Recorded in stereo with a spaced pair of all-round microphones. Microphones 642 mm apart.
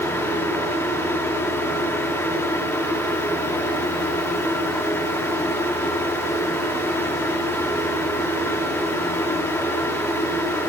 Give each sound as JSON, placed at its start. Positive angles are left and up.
{"t": 0.0, "sound": "a fan", "side_deg": 5, "distance_m": 2.0}